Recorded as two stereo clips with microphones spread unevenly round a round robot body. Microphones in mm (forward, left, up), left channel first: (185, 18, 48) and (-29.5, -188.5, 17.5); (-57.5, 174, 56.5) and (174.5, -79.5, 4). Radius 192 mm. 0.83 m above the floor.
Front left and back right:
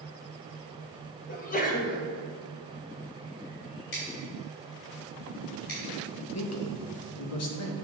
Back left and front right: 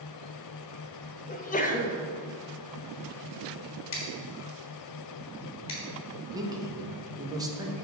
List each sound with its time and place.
1.3 s a sneeze: 75° left, 0.9 m
3.9 s scissors: 90° left, 2.5 m
6.3 s a man speaking: 20° left, 1.2 m